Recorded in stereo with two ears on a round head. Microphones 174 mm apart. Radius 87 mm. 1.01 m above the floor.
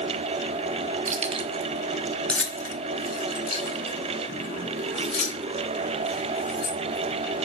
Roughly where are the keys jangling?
Right.